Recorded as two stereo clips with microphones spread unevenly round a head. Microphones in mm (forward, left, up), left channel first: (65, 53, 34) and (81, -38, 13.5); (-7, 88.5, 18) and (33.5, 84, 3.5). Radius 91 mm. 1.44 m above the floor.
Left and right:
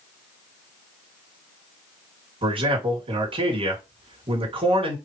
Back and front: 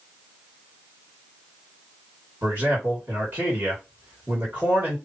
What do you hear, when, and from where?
2.4 s a man speaking: 70° right, 2.5 m